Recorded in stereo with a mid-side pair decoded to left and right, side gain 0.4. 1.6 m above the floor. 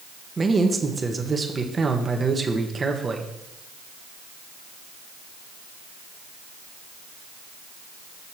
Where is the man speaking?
35° right, 1.4 m.